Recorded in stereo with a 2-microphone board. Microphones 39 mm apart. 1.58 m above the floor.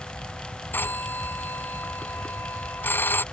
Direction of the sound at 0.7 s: 60° left (ahead or behind).